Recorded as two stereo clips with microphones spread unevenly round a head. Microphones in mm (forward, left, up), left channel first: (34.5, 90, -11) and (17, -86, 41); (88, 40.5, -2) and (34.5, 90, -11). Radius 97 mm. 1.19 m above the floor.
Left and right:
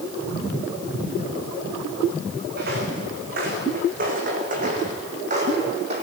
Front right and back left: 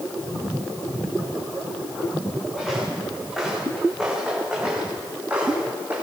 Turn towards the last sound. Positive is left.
turn(degrees=-145)